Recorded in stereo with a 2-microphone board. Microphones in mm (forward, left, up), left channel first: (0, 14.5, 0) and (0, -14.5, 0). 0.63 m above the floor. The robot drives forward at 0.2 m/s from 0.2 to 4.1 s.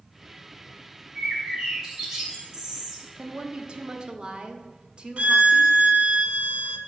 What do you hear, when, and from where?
1.1 s a bird: 25° right (ahead or behind), 3 m; by 3.1 s 20° right (ahead or behind), 3 m
3.2 s a woman speaking: 40° right (ahead or behind), 0.7 m; by 5.8 s 35° right (ahead or behind), 0.8 m
5.2 s a violin: 50° right (ahead or behind), 0.7 m